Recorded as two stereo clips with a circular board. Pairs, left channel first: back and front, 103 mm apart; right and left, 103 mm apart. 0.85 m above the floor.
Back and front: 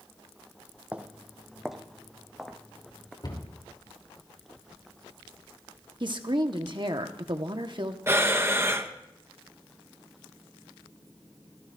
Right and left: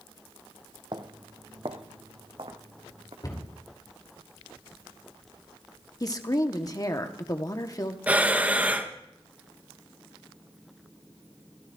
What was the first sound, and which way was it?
Footsteps, 70° left.